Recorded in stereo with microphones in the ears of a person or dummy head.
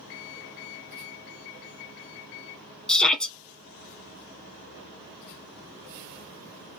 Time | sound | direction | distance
2.9 | a shout | 5° left (ahead or behind) | 0.7 m